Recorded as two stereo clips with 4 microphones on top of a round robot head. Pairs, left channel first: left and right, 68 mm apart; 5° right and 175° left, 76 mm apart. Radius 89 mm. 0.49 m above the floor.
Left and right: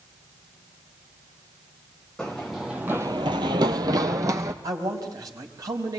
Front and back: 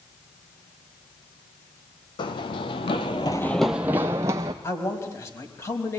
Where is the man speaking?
60° right, 3.5 m.